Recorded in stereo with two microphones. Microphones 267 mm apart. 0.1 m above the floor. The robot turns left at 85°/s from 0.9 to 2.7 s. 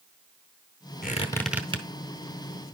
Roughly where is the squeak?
Left.